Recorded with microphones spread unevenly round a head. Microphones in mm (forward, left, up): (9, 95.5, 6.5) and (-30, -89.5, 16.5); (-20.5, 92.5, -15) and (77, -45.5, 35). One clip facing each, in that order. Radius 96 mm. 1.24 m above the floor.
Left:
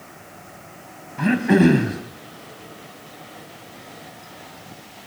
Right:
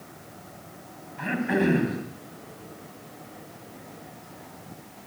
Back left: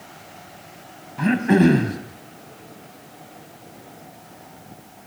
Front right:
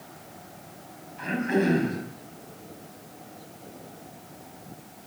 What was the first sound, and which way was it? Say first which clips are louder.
Throat clearing: left 9 dB, back left 9 dB; 105° left.